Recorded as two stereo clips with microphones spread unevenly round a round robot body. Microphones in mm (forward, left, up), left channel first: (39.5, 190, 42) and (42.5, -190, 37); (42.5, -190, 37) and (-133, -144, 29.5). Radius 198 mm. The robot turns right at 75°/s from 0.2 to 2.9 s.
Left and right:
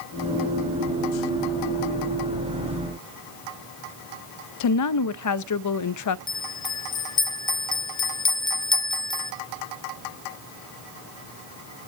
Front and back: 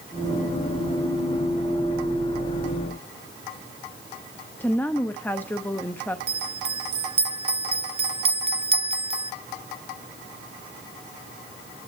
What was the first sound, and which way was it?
A woman speaking, 65° left.